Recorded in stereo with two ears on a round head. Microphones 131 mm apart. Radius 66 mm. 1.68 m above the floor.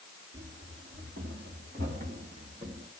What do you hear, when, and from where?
0.3 s running footsteps: 70° right (ahead or behind), 5.5 m; by 2.9 s 35° right (ahead or behind), 5 m